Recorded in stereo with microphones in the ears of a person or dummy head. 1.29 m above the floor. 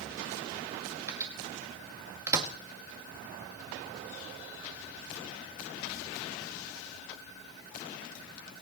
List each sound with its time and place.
1.1 s a microwave: 20° right (ahead or behind), 1.8 m